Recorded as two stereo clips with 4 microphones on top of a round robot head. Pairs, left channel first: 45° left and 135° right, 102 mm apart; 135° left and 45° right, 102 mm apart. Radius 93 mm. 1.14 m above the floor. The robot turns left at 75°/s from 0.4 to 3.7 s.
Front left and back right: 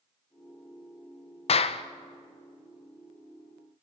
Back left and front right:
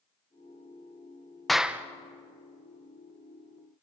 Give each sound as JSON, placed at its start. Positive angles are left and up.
{"t": 1.5, "sound": "a clap", "azimuth_deg": 45, "distance_m": 0.8}